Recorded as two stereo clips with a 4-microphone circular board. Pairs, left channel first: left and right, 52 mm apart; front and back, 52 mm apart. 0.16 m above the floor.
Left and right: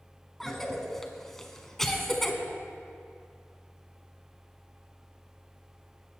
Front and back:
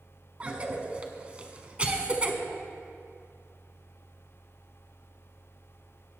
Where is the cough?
165° left, 1.1 m.